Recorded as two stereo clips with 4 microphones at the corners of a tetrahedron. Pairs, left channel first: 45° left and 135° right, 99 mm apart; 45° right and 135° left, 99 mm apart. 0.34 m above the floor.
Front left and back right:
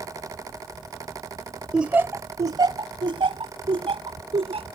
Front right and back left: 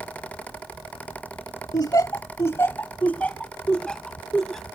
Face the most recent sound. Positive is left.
turn(degrees=-130)